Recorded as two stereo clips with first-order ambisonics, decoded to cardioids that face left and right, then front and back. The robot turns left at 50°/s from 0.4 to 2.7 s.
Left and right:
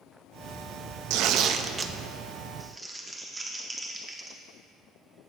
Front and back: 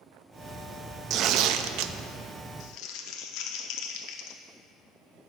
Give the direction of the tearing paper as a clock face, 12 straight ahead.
4 o'clock.